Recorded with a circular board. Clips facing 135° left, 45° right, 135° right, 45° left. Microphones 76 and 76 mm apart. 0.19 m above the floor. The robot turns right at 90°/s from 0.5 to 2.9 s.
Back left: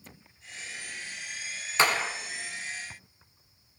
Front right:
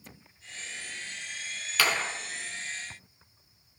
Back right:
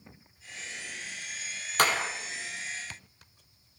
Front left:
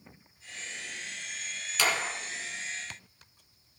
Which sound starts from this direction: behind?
A clap, at 1.8 s.